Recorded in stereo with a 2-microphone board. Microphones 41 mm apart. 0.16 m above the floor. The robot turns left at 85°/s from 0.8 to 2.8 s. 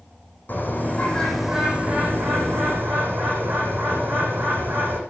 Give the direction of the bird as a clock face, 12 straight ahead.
10 o'clock.